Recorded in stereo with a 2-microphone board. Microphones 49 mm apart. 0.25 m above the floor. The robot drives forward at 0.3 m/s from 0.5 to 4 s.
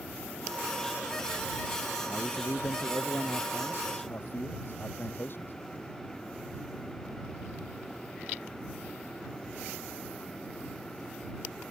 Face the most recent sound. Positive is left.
turn(degrees=50)  # may be behind; listen again after turning